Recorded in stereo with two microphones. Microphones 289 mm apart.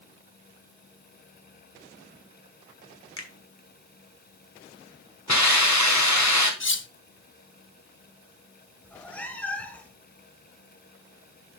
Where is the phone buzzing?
No phone buzzing in this recording.